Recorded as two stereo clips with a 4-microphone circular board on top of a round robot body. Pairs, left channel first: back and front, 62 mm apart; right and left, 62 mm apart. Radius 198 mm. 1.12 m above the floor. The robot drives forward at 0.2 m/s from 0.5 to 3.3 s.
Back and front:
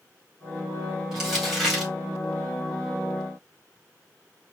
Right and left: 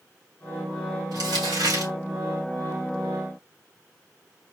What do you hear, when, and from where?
1.1 s crumpling: 85° left, 2.5 m; by 1.9 s 90° left, 2.5 m